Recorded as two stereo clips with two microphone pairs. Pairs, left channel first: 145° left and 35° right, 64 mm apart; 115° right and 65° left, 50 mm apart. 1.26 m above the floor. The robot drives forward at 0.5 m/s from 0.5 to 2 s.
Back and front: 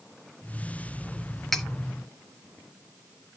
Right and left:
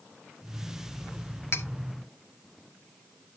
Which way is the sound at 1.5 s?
125° right.